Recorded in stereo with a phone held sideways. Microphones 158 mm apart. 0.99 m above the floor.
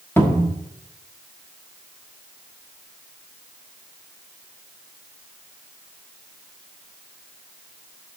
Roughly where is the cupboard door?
Centre.